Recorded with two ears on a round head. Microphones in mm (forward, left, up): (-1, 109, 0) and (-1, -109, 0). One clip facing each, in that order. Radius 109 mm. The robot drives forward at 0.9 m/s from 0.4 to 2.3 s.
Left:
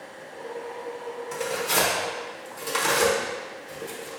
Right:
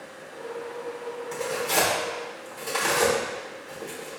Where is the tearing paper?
5° left (ahead or behind), 1.0 m.